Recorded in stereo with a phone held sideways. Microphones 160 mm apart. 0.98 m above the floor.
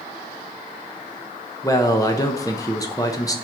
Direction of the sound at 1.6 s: 20° left (ahead or behind).